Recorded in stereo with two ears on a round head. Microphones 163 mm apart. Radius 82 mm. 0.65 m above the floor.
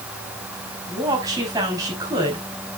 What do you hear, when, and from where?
0.9 s a woman speaking: 20° right (ahead or behind), 5 m